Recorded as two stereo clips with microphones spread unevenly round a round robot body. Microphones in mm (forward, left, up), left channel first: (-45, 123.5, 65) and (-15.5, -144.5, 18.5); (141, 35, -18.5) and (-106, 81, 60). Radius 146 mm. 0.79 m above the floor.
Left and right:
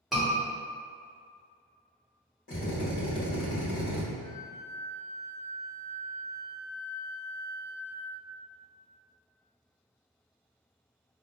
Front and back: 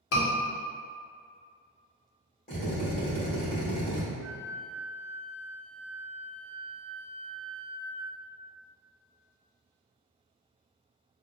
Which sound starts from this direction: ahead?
A scream, at 0.1 s.